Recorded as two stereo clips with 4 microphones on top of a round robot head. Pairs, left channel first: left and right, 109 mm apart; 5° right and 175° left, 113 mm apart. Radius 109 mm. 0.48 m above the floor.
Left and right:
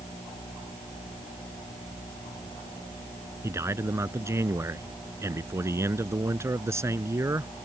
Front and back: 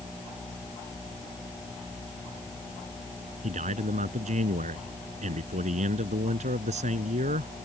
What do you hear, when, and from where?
3.4 s a man speaking: 155° right